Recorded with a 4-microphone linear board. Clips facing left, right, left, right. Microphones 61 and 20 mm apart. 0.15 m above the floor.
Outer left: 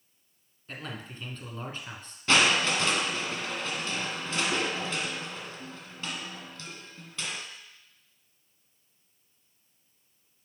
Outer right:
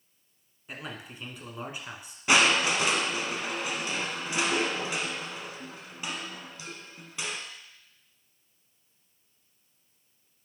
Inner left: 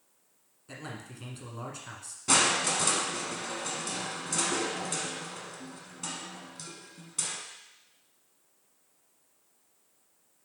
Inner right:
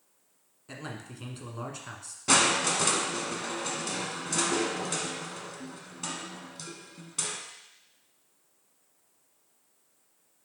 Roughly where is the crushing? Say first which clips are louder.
Outer right 1 dB, inner right 1 dB; centre.